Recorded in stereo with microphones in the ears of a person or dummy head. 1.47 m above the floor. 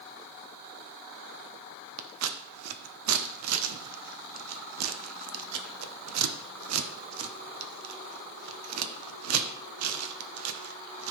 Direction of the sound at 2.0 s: 85° right.